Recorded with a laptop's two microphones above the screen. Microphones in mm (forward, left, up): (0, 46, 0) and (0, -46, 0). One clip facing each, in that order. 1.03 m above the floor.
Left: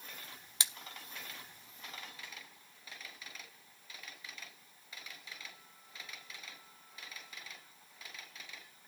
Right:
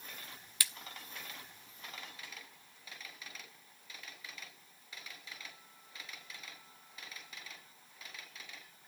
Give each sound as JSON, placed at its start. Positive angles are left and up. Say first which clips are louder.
{"t": 0.6, "sound": "a splash", "louder": "even", "side_deg": 20, "distance_m": 0.6}